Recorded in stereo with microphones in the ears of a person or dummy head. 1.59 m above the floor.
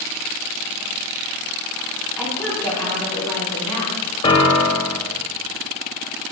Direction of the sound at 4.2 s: 20° left (ahead or behind).